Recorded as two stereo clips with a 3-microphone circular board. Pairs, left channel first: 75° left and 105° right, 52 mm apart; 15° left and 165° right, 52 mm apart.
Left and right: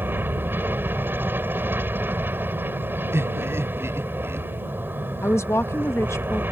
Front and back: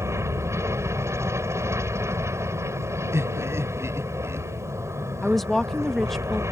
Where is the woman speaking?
100° left.